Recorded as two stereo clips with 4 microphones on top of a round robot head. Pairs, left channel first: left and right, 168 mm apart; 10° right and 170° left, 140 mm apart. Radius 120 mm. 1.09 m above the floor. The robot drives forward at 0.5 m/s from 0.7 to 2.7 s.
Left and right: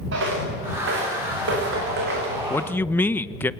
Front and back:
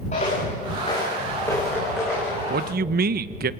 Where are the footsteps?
65° right, 6 m; by 2.4 s 110° right, 4.5 m.